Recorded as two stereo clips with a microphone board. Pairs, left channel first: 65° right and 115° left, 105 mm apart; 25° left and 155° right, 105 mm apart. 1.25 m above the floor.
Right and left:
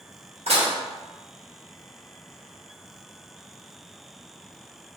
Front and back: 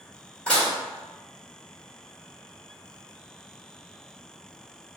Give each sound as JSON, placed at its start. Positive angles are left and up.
{"t": 0.5, "sound": "dishes clattering", "azimuth_deg": 100, "distance_m": 1.2}